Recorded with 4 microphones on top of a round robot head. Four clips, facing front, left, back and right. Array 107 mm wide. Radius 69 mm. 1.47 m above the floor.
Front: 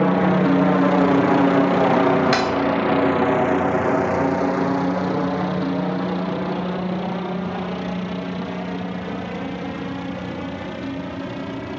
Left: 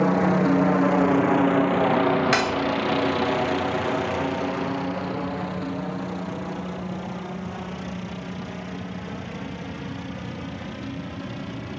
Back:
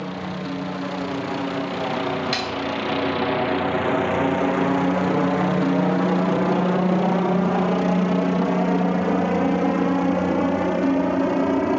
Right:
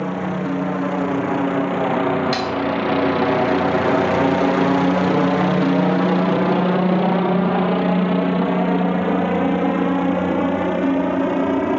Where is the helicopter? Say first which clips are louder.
Left 3 dB, front 12 dB; 20° left; by 11.8 s 125° right.